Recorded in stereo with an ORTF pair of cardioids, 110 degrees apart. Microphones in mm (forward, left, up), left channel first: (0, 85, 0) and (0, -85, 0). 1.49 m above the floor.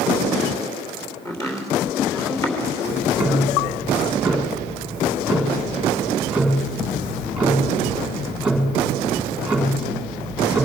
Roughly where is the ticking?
Ahead.